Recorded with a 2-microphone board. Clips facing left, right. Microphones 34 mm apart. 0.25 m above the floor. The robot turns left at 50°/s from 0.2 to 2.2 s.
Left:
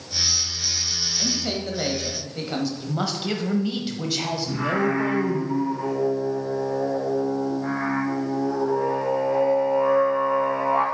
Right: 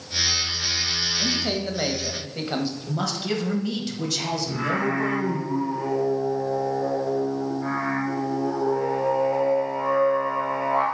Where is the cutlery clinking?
No cutlery clinking in this recording.